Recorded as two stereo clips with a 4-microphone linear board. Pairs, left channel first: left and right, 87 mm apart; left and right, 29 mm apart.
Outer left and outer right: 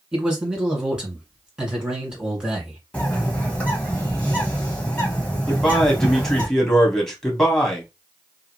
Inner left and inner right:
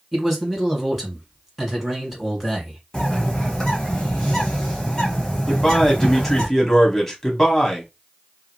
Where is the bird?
15° left (ahead or behind), 1.3 m.